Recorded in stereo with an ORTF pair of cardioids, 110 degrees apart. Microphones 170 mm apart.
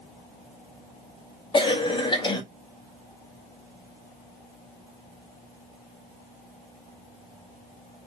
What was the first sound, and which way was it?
A cough, 25° left.